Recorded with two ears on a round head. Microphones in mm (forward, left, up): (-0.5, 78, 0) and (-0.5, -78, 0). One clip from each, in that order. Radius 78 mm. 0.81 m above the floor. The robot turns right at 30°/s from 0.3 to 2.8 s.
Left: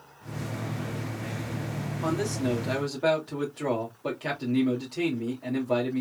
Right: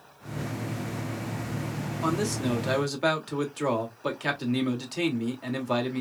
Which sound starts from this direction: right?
A man speaking, at 2.0 s.